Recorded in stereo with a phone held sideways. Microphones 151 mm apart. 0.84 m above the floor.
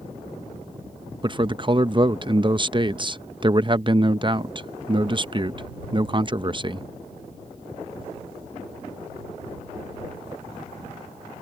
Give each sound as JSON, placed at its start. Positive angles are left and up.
{"t": 1.2, "sound": "a man speaking", "side_deg": -30}